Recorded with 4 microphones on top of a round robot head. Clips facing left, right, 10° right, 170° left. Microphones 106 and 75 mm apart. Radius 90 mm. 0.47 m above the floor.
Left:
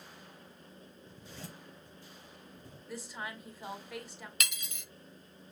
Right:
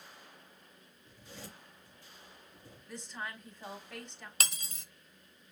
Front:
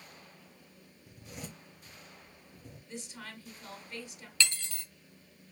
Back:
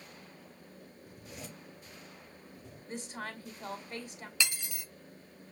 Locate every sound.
1.1 s a zipper: 5° right, 3.5 m
2.9 s a woman speaking: 170° left, 1.5 m
4.4 s cutlery clinking: 120° right, 0.5 m